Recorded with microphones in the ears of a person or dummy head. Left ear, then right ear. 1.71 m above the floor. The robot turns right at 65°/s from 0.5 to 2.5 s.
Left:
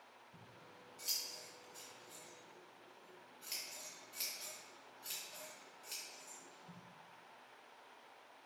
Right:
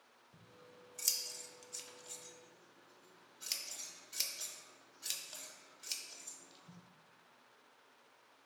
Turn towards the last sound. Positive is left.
turn(degrees=-25)  # may be behind; listen again after turning